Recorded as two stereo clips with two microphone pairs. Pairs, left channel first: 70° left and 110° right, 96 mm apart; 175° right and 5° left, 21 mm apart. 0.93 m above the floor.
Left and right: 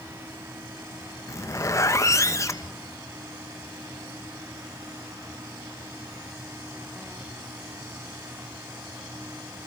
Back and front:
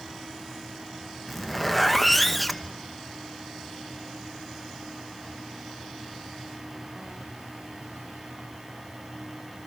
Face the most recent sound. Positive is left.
turn(degrees=100)